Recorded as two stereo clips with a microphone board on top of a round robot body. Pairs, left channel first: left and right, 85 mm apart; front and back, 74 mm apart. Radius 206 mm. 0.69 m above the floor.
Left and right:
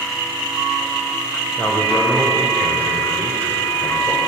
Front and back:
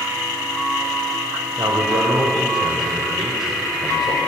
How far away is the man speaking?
About 4 m.